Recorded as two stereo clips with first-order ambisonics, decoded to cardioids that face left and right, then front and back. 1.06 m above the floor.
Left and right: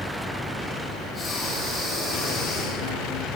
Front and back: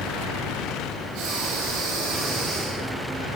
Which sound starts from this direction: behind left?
Breathing, at 1.1 s.